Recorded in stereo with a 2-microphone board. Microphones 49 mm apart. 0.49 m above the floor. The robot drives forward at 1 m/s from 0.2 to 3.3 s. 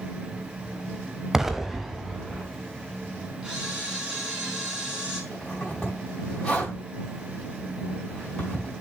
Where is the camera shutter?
20° right (ahead or behind), 2.5 m.